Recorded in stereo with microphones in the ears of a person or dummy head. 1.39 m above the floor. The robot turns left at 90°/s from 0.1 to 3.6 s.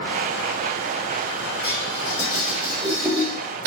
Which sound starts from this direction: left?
Dishes clattering, at 1.6 s.